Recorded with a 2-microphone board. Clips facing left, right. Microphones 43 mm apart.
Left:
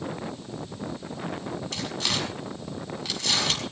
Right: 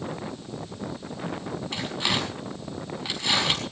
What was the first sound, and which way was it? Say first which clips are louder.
Tearing paper: right 3 dB; 20° right (ahead or behind).